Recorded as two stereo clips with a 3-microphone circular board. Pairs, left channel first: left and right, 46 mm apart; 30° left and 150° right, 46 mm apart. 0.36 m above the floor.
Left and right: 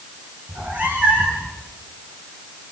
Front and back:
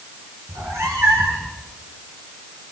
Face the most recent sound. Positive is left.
turn(degrees=-155)